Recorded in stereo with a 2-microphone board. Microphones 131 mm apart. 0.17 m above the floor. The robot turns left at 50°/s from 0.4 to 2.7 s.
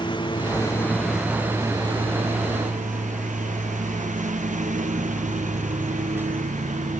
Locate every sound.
0.0 s a lawn mower: 35° left (ahead or behind); by 7.0 s 70° right (ahead or behind)